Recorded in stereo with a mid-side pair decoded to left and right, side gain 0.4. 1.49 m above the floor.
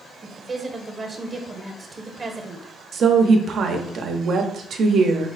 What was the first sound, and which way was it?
A woman speaking, 35° right.